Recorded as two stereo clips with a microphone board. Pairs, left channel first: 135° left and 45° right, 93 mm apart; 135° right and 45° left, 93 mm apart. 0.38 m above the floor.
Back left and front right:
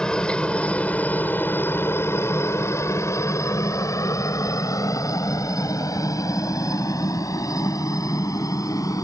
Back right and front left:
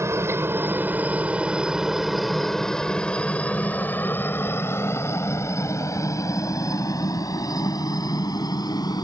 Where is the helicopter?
60° left; by 9.1 s 175° right.